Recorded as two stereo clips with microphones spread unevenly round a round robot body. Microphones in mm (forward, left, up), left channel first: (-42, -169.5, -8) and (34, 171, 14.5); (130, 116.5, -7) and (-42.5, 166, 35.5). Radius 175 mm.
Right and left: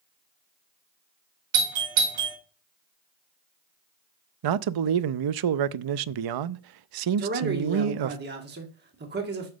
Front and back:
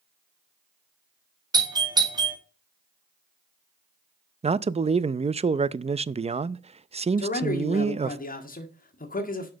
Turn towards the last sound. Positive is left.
turn(degrees=15)